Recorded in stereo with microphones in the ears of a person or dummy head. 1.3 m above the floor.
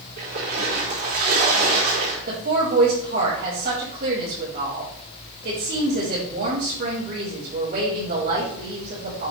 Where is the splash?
50° right (ahead or behind), 4 m.